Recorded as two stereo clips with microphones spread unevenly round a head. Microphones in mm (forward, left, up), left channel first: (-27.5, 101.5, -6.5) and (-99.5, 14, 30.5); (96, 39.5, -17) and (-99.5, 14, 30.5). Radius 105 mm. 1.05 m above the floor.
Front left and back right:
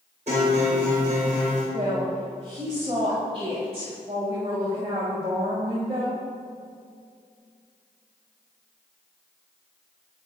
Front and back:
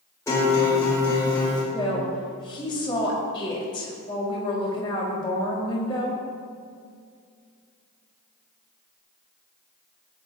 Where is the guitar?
70° right, 4.5 m.